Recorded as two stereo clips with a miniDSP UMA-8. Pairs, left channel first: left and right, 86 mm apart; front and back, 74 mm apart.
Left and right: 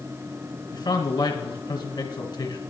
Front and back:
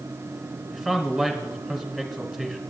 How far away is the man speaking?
About 2 m.